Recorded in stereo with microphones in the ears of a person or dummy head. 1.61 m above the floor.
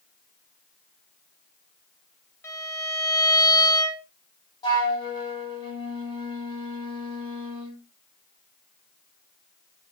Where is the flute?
25° left (ahead or behind), 2.5 m.